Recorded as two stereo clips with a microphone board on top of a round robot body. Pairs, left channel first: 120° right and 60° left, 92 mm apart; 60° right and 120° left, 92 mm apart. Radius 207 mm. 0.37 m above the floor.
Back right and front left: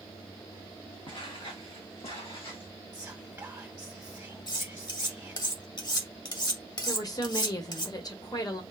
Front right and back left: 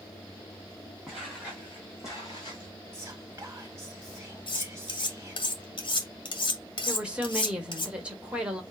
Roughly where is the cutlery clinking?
Right.